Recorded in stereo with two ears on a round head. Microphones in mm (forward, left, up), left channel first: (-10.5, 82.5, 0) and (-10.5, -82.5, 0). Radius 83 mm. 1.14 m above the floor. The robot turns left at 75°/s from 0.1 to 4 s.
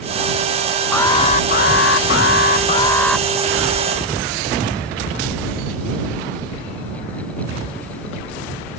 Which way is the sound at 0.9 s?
170° left.